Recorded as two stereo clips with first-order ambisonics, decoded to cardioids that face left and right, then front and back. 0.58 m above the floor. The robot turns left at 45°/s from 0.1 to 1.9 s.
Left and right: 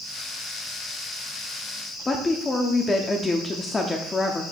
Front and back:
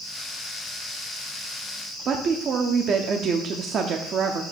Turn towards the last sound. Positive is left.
turn(degrees=155)